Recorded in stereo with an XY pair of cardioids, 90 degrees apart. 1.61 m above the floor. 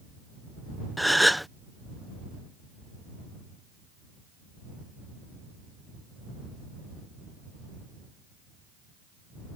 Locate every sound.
1.0 s a gasp: straight ahead